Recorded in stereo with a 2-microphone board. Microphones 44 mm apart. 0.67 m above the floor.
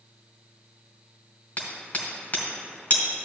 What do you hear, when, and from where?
1.6 s hammering: 40° left (ahead or behind), 2.5 m